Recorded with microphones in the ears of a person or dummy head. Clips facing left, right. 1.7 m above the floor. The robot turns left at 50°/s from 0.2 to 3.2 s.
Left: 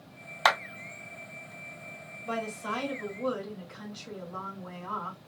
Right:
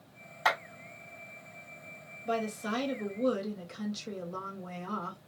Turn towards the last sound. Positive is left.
turn(degrees=-50)